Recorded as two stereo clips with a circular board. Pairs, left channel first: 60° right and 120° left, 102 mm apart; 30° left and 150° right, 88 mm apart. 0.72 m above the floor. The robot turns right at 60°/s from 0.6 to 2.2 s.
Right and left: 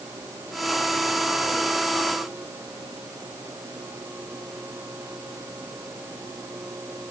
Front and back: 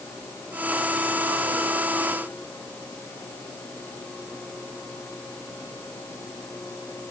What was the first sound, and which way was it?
Only background noise.